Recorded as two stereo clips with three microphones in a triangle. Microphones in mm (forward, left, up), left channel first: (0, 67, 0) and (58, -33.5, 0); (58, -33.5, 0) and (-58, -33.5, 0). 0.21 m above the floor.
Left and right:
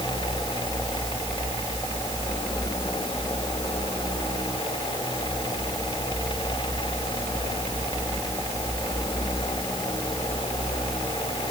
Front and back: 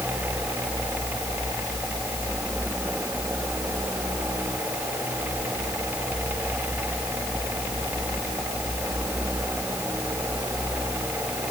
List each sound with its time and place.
Only background noise.